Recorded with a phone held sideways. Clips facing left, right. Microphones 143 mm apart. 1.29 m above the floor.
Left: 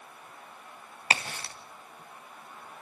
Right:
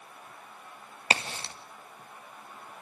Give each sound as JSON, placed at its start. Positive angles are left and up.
{"t": 1.1, "sound": "a crack", "side_deg": -25, "distance_m": 2.5}